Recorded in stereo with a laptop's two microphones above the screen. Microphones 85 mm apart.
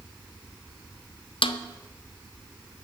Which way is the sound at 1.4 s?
80° left.